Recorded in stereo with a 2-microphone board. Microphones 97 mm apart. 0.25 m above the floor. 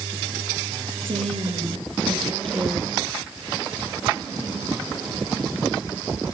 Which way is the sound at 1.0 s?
70° right (ahead or behind).